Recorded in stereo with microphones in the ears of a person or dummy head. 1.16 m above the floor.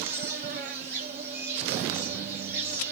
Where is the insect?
50° right (ahead or behind), 2 m.